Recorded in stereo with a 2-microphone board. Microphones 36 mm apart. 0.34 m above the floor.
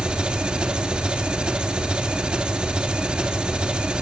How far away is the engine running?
About 3.5 m.